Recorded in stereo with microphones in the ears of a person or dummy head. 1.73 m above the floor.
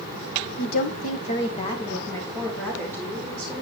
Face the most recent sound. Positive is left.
turn(degrees=5)  # may be behind; listen again after turning